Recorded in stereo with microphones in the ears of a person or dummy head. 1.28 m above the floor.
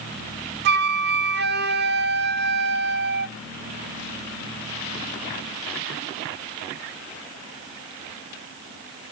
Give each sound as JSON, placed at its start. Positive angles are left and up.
{"t": 0.7, "sound": "a flute", "side_deg": -50, "distance_m": 0.5}